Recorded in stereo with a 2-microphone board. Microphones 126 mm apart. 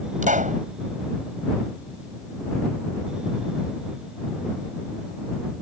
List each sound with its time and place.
0.2 s a pop: 80° right